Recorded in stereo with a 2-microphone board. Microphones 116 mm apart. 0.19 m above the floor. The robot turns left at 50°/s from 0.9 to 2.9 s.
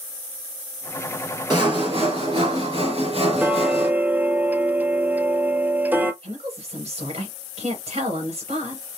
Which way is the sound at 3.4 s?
15° right (ahead or behind).